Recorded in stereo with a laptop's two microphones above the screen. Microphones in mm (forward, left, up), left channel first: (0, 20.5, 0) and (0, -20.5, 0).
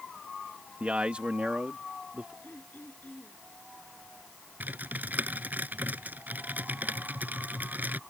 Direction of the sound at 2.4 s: 50° left (ahead or behind).